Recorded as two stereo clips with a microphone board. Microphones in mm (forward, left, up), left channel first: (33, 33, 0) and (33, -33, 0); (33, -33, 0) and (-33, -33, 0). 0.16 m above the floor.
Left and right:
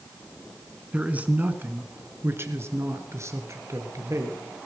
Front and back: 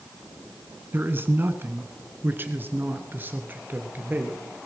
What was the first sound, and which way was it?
A man speaking, 150° right.